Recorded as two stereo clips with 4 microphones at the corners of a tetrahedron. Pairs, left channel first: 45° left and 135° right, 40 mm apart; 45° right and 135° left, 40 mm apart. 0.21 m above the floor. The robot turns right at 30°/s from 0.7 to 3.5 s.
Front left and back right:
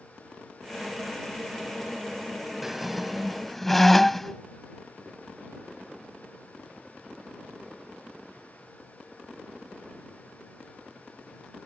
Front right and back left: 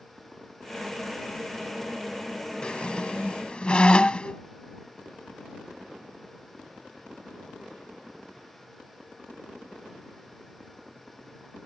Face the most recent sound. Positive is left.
turn(degrees=-35)